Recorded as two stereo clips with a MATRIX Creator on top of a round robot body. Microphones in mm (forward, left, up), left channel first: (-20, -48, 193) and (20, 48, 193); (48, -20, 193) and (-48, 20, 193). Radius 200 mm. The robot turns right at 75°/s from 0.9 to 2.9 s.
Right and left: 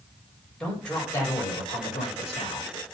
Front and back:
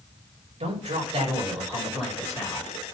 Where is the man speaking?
165° left, 5.5 m; by 2.7 s 60° right, 5.5 m.